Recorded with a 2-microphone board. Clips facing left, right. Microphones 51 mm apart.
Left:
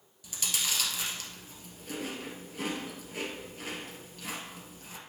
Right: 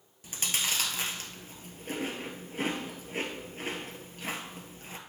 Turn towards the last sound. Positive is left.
turn(degrees=-40)  # may be behind; listen again after turning